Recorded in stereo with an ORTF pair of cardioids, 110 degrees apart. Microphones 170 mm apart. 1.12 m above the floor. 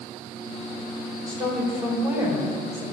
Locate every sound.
1.3 s a woman speaking: 20° right, 4.5 m; by 2.8 s 10° right, 5 m